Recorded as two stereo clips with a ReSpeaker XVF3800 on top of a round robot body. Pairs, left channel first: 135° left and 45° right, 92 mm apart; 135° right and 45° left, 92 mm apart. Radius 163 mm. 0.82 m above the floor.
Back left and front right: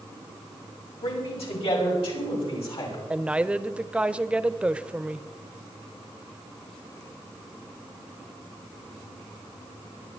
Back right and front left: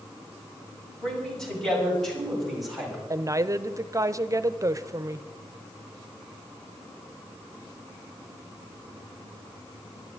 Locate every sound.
1.0 s a man speaking: 145° left, 5.5 m; by 3.0 s 135° left, 6 m
3.1 s a woman speaking: 25° left, 0.9 m